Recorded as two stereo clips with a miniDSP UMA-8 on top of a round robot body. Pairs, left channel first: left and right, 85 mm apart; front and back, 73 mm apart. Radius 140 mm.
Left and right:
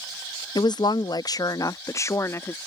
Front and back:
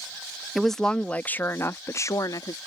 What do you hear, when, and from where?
0.6 s a woman speaking: 90° left; by 2.6 s 30° left